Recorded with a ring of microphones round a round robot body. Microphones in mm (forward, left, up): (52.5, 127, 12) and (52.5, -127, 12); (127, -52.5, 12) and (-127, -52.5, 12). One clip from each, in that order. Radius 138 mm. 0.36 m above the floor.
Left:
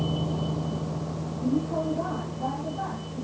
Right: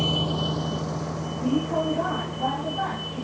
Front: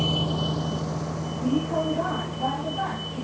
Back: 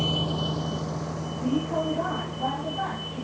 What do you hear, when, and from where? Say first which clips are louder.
0.0 s a vehicle: right 6 dB, front 1 dB; 100° right